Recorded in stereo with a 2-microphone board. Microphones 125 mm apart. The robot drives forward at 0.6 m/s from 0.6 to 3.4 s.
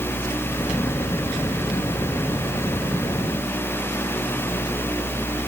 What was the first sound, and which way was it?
Only background noise.